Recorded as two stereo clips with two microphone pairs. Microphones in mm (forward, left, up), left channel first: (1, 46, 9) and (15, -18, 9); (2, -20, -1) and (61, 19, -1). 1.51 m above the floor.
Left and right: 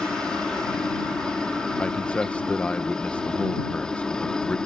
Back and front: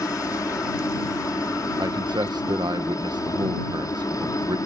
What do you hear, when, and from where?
0.0 s a helicopter: straight behind
1.8 s a man speaking: 30° left